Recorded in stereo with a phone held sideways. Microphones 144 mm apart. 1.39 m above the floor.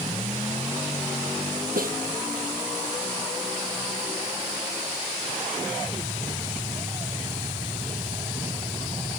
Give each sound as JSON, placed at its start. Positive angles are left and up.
{"t": 1.8, "sound": "a snare drum", "side_deg": -85}